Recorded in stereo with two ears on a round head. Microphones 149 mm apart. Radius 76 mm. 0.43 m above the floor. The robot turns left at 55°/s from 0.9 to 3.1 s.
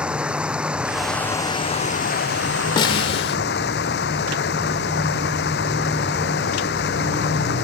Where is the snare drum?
30° left (ahead or behind); by 3.4 s 35° left (ahead or behind).